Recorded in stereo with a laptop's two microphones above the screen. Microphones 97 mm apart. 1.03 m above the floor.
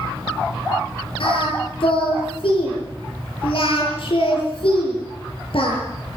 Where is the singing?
65° left (ahead or behind), 7.5 m.